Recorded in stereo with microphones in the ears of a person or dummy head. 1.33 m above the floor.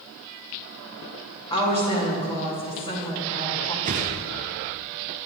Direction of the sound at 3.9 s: 35° right (ahead or behind).